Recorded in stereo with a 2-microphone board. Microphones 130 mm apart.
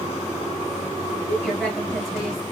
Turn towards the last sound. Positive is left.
turn(degrees=0)  # may be behind; listen again after turning